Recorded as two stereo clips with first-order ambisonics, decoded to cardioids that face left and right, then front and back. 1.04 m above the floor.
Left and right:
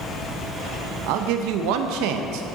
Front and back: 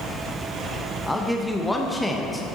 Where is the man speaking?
85° right, 0.7 m.